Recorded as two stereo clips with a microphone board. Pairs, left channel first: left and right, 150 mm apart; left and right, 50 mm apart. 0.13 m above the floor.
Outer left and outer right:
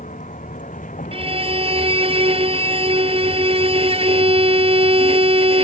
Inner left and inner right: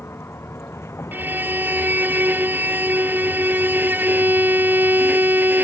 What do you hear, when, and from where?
0.0 s a vehicle: 60° left (ahead or behind)
1.1 s a violin: 40° right (ahead or behind)